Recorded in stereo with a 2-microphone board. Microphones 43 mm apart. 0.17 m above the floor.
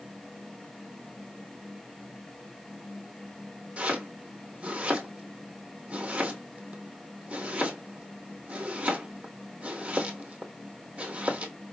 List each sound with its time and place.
3.8 s chopping: 25° right (ahead or behind), 1.3 m